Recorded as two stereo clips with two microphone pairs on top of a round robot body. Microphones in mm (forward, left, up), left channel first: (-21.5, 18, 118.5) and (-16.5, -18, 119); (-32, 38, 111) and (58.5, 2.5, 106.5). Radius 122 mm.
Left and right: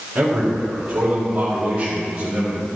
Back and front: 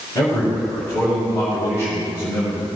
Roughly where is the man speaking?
Behind right.